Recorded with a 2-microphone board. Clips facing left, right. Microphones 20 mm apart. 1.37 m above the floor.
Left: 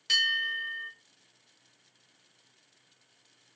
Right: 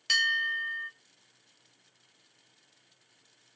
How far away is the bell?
About 1.3 m.